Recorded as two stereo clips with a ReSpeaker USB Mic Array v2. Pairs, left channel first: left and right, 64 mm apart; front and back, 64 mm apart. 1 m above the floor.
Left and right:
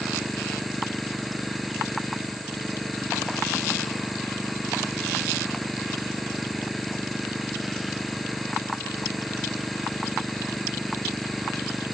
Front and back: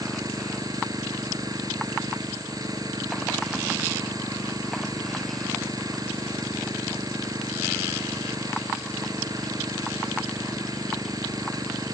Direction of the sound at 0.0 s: Straight behind.